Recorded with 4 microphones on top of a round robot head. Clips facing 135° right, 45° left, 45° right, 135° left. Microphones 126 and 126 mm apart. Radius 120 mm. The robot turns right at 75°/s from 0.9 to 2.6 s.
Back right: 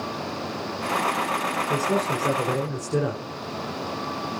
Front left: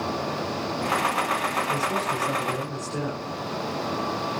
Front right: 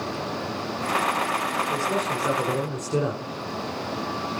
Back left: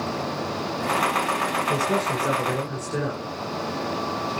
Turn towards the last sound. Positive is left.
turn(degrees=-100)